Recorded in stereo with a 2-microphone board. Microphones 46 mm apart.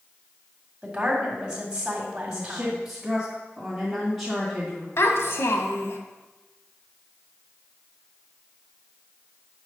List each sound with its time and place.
0.8 s a woman speaking: 20° right (ahead or behind), 1.9 m
2.3 s a woman speaking: 5° left (ahead or behind), 1.9 m
5.0 s a child speaking: 65° left (ahead or behind), 1.0 m